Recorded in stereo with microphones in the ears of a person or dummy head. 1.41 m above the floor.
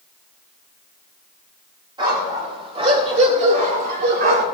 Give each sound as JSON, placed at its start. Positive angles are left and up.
{"t": 2.0, "sound": "a dog barking", "side_deg": -30, "distance_m": 3.0}